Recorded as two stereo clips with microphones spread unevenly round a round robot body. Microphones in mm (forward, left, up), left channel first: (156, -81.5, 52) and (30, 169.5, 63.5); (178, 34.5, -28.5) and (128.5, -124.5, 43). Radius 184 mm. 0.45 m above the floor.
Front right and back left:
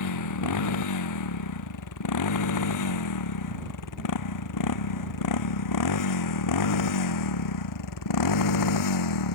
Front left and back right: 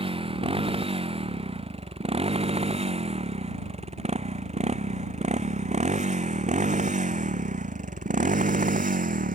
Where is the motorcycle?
50° right; by 9.4 s 70° right.